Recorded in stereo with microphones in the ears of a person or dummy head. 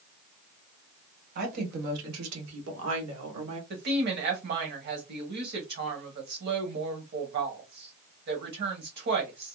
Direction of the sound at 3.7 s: 55° right (ahead or behind).